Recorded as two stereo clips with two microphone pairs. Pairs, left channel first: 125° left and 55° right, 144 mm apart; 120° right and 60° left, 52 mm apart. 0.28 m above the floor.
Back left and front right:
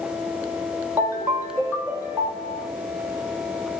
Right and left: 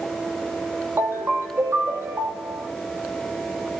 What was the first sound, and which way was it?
A ringtone, 20° left.